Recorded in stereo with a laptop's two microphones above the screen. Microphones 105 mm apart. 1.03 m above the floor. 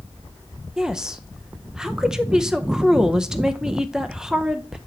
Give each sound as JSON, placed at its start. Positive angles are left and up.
{"t": 0.8, "sound": "a woman speaking", "side_deg": -5, "distance_m": 0.6}